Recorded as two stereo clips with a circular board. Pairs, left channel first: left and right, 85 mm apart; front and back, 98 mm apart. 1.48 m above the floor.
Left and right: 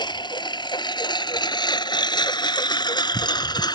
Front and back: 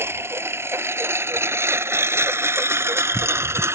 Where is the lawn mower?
115° left; by 3.8 s 120° left.